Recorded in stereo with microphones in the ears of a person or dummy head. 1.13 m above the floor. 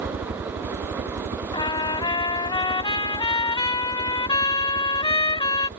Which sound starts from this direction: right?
A helicopter, at 0.0 s.